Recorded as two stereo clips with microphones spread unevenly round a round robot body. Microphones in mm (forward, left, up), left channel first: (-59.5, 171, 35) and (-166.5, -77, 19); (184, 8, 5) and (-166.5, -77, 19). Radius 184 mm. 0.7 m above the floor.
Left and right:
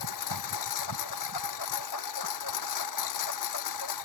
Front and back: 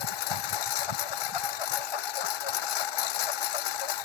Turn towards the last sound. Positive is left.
turn(degrees=35)